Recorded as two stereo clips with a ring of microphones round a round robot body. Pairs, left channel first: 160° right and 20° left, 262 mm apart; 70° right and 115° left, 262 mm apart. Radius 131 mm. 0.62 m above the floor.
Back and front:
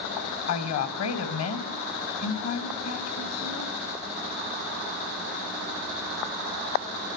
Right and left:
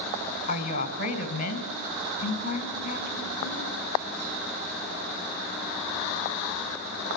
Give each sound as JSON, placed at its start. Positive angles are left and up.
{"t": 0.5, "sound": "a woman speaking", "azimuth_deg": -125, "distance_m": 4.0}